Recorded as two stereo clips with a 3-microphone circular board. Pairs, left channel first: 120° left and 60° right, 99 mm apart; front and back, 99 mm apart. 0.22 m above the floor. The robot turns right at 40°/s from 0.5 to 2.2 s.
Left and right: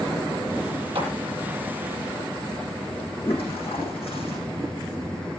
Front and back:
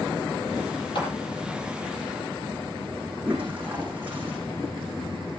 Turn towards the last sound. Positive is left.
turn(degrees=105)